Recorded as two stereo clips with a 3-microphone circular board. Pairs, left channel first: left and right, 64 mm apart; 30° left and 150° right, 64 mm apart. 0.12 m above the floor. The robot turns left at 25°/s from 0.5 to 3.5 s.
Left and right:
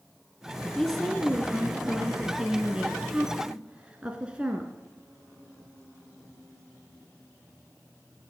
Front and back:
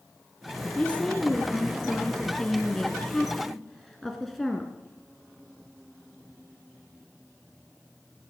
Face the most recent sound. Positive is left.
turn(degrees=-50)